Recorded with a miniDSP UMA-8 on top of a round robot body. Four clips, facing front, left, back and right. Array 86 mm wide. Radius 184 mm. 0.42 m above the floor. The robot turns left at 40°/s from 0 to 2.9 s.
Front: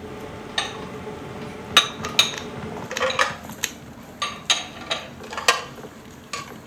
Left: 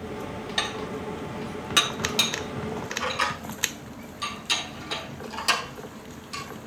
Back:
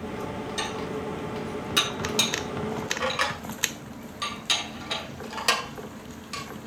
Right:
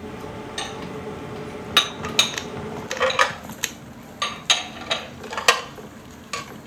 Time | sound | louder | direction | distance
0.6 | dishes clattering | left 2 dB, front 2 dB | 30° left | 2 m